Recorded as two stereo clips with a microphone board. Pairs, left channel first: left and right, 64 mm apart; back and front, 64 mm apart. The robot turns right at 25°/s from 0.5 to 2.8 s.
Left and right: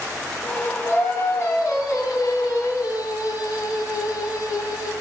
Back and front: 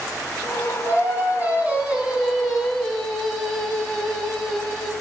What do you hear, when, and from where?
0.8 s singing: 45° left, 2 m; by 4.9 s 95° left, 2 m